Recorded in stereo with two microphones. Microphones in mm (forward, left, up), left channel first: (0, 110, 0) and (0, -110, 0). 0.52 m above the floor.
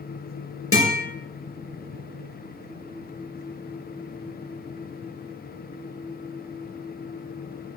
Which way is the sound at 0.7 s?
85° right.